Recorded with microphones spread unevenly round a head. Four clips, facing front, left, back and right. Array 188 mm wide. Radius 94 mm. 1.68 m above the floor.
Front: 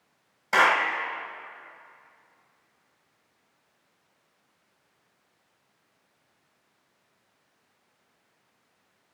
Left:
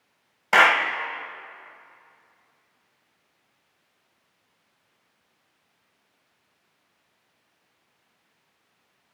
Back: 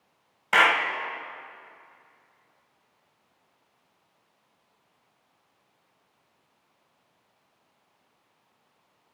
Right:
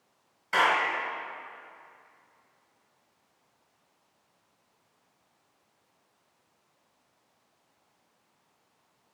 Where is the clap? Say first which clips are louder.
Left 6 dB, even; 100° left, 1.1 m.